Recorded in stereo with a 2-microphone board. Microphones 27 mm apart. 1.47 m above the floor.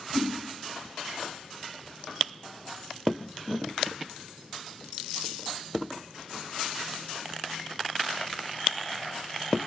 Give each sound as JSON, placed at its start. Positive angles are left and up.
{"t": 0.1, "sound": "a whoosh", "side_deg": 65, "distance_m": 4.5}